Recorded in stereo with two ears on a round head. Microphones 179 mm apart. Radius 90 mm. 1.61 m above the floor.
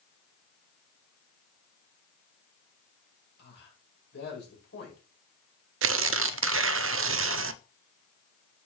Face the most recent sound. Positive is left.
turn(degrees=-65)  # may be behind; listen again after turning